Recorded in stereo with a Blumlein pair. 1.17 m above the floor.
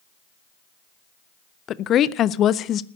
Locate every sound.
1.7 s a woman speaking: 30° left, 0.6 m